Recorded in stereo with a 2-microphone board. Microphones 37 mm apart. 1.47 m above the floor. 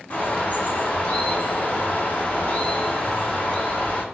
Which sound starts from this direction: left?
A bird, at 0.1 s.